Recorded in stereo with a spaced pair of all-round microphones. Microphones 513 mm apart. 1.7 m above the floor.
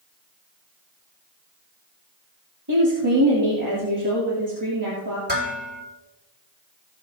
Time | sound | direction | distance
2.7 | a woman speaking | 50° right (ahead or behind) | 3 m
5.3 | dishes clattering | 20° right (ahead or behind) | 4 m